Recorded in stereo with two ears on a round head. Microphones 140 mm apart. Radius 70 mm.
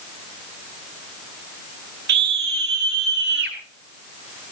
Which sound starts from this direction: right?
A scream, at 2.1 s.